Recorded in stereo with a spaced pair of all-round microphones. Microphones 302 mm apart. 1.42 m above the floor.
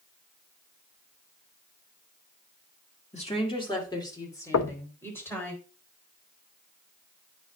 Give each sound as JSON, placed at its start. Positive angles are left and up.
{"t": 3.1, "sound": "a woman speaking", "side_deg": 20, "distance_m": 2.0}
{"t": 4.5, "sound": "knocking", "side_deg": 60, "distance_m": 0.5}